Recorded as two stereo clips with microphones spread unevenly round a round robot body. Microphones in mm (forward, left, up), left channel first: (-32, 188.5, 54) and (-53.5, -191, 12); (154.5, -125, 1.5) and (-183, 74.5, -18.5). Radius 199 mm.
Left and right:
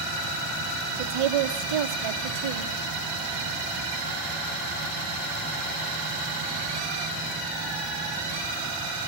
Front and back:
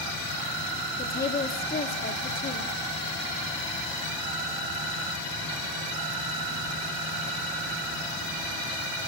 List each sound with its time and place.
1.0 s a woman speaking: 100° right, 2 m